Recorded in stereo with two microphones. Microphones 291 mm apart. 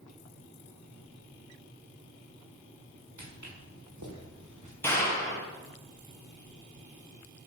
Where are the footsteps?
90° right, 5.5 m; by 4.7 s 85° right, 3.5 m.